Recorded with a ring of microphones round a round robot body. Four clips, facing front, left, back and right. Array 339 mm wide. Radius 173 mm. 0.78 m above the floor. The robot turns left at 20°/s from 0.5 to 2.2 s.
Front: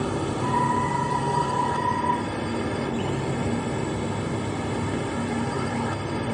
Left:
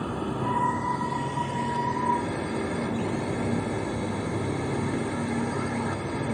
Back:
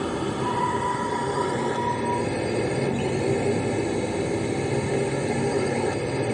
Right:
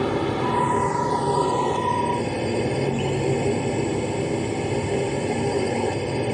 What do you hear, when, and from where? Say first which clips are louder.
0.0 s a drone: right 7 dB, even; 95° right; by 6.3 s 130° right